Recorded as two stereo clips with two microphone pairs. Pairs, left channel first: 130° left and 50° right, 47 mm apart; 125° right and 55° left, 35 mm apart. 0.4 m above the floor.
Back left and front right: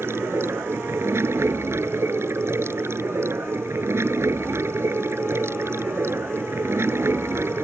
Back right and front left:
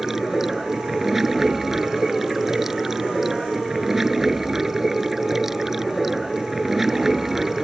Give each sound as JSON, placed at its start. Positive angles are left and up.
{"t": 0.0, "sound": "running water", "azimuth_deg": -25}